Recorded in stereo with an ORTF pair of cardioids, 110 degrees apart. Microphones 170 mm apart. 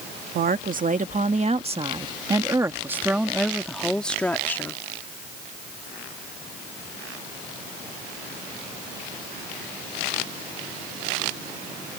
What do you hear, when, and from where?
0.3 s a woman speaking: 60° right; by 4.8 s 15° left